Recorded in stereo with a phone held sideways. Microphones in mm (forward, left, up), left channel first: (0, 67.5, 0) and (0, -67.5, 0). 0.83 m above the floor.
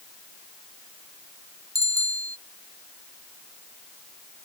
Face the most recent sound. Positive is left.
turn(degrees=-25)  # may be behind; listen again after turning